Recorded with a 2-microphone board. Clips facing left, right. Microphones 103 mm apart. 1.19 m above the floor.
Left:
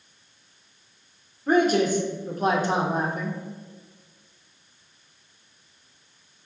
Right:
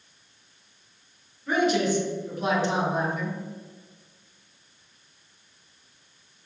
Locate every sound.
1.5 s a man speaking: 45° left (ahead or behind), 1.0 m